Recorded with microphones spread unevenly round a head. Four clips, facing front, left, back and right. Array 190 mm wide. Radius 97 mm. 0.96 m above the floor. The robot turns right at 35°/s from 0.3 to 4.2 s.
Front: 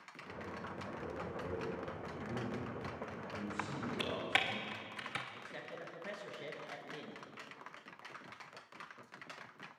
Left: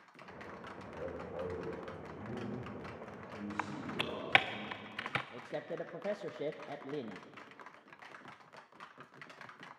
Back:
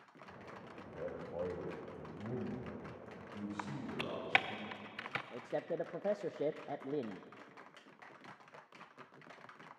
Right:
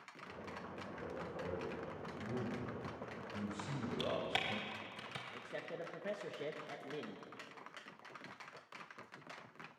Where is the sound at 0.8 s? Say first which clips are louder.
Left 5 dB, back 2 dB; 130° left, 5 m; by 4.6 s 110° right, 5 m.